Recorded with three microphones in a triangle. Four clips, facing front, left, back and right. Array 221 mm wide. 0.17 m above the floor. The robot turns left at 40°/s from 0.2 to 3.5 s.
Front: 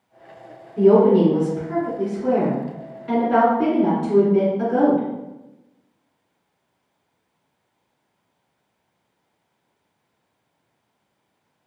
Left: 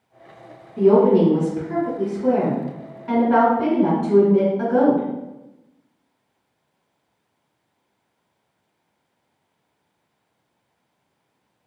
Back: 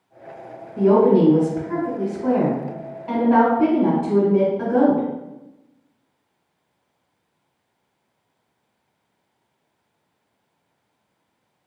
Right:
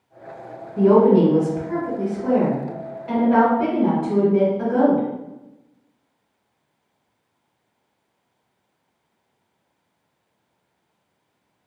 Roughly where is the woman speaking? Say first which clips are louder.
Even, front 1 dB; behind right.